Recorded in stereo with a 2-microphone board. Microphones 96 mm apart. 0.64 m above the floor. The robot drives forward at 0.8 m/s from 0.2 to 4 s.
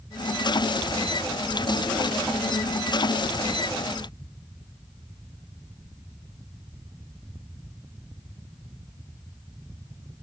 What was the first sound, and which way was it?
Only background noise.